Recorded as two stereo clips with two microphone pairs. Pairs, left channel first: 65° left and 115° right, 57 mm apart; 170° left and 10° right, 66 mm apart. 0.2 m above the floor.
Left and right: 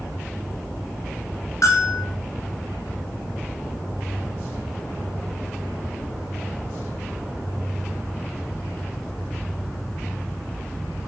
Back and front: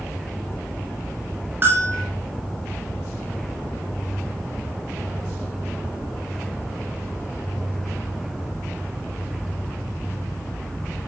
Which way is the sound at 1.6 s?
40° left.